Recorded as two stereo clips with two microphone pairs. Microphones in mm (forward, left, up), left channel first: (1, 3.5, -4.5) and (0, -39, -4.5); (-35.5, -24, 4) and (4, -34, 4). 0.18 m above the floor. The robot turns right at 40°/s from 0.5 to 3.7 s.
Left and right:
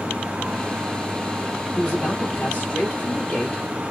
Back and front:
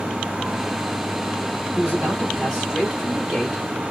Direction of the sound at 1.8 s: 20° left.